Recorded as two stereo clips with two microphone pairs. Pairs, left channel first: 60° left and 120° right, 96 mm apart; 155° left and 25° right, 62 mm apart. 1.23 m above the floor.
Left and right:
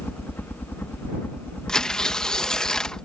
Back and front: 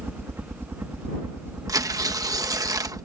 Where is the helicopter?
5° right.